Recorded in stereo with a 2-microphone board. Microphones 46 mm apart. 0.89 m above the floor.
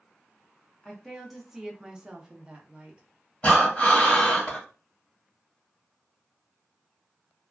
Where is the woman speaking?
5° left (ahead or behind), 0.7 m; by 3.0 s 25° right (ahead or behind), 1.1 m.